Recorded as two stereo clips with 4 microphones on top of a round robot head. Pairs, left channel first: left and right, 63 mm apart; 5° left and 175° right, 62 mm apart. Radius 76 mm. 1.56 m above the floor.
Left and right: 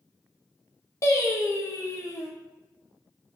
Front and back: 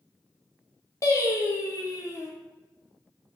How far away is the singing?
About 0.5 m.